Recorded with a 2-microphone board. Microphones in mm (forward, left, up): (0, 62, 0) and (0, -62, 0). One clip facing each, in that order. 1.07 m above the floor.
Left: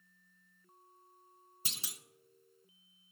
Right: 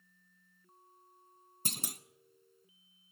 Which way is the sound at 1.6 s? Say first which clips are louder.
Right 8 dB; 45° right (ahead or behind).